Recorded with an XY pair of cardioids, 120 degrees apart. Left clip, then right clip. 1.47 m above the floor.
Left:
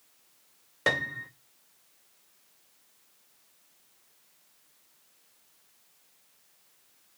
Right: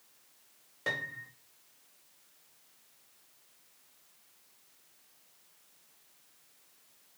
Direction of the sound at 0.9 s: 60° left.